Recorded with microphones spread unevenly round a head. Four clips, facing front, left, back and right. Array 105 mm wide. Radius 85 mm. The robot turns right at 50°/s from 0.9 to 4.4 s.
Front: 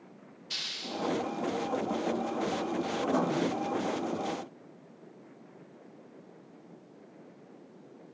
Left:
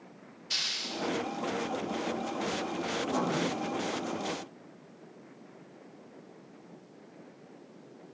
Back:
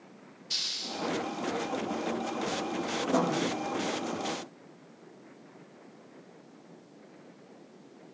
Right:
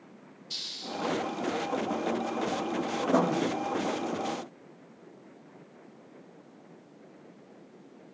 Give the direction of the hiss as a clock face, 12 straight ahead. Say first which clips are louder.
Right 1 dB, front 1 dB; 9 o'clock.